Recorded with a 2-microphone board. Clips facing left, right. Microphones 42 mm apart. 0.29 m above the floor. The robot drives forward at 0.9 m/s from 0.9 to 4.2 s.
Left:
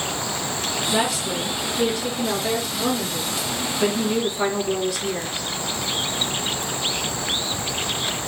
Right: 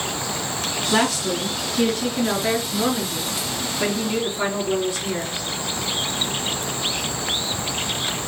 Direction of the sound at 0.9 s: 65° right (ahead or behind).